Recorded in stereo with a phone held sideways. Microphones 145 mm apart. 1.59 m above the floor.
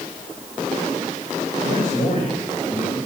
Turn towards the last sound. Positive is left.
turn(degrees=60)  # may be behind; listen again after turning